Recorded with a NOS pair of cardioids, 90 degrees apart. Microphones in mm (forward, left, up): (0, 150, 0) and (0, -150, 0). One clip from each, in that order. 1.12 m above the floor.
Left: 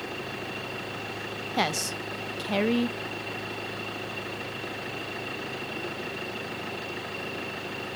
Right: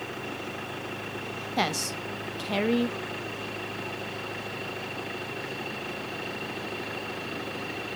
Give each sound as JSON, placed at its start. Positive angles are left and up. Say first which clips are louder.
{"t": 1.6, "sound": "a woman speaking", "louder": "left 1 dB", "azimuth_deg": 5, "distance_m": 0.9}